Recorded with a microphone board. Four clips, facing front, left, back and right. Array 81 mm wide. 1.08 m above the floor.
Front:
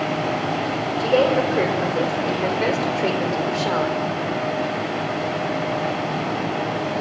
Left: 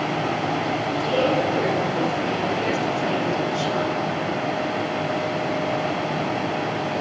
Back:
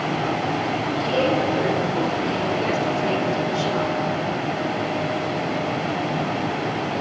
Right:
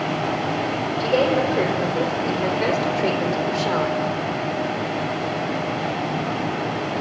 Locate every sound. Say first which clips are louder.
1.0 s a woman speaking: right 3 dB, front 4 dB; 25° right, 5.5 m; by 4.0 s 45° right, 4 m